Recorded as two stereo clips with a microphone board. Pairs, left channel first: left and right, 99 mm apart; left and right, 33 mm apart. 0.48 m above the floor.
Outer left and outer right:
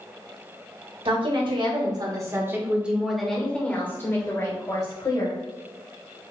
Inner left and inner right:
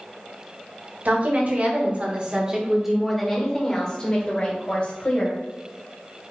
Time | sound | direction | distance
1.1 | a woman speaking | 60° right (ahead or behind) | 1.3 m